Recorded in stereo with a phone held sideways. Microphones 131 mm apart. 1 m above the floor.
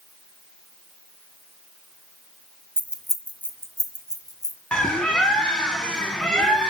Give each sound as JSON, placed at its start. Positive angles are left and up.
{"t": 2.8, "sound": "keys jangling", "side_deg": -15, "distance_m": 0.7}
{"t": 4.7, "sound": "a bird", "side_deg": 5, "distance_m": 1.6}